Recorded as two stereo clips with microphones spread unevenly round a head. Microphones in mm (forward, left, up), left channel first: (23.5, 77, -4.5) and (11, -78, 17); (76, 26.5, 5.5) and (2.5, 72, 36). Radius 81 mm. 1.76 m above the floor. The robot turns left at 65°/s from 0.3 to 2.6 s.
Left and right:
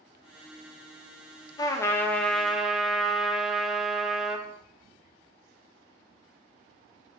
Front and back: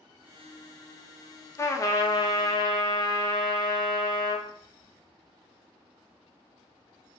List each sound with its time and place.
1.6 s a trumpet: 35° left, 0.5 m; by 4.5 s 30° right, 0.5 m